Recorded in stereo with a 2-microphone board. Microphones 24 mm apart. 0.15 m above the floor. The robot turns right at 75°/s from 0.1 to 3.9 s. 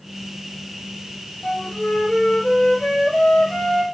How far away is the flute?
About 1.1 m.